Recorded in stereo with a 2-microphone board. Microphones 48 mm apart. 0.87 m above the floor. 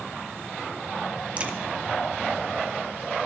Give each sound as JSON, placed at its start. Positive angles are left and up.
{"t": 1.4, "sound": "a crack", "side_deg": -25, "distance_m": 1.4}